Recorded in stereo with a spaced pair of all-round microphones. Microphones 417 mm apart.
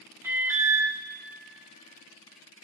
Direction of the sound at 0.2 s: 5° right (ahead or behind).